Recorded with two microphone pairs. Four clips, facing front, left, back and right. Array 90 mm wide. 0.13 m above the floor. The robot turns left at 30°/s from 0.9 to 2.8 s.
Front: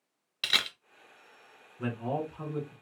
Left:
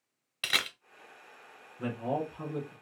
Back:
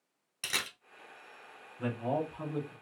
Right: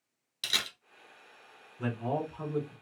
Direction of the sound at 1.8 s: 25° right.